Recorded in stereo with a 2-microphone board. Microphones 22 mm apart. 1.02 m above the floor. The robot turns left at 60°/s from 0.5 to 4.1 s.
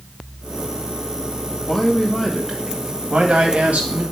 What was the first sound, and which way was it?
A man speaking, 30° left.